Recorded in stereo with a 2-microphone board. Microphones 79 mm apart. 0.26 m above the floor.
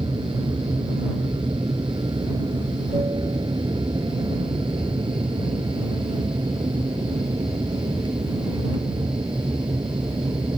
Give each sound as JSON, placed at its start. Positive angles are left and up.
{"t": 0.0, "sound": "an aircraft", "side_deg": -70}